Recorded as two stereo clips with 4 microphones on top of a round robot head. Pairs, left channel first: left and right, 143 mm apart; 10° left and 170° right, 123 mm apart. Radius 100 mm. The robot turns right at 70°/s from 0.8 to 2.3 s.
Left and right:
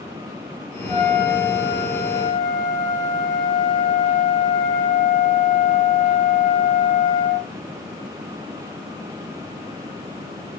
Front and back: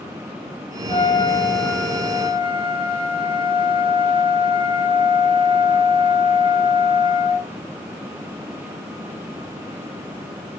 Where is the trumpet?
45° left, 4.5 m; by 7.5 s 145° left, 4.5 m.